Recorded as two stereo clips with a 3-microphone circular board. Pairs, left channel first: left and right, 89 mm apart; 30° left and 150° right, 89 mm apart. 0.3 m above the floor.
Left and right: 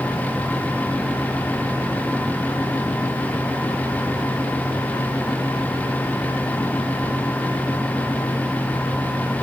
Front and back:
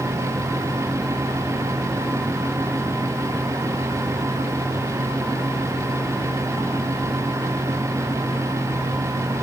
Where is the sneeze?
No sneeze in this recording.